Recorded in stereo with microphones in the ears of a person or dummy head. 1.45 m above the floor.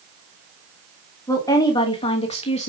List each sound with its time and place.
1.3 s a woman speaking: 20° left (ahead or behind), 2.5 m; by 2.7 s 35° left (ahead or behind), 2 m